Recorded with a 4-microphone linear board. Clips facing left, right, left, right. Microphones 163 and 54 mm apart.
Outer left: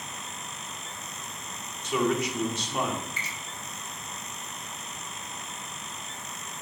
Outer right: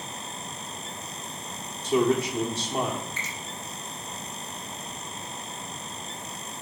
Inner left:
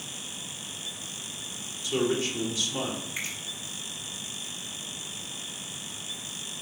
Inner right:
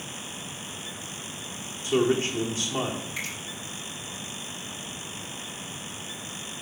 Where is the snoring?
No snoring in this recording.